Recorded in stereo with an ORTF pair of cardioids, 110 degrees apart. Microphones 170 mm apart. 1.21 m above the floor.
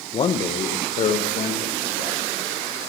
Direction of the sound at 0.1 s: 35° left.